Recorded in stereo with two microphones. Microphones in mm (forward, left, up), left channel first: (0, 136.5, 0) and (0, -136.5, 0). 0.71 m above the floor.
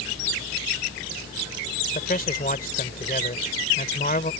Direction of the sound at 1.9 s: 35° left (ahead or behind).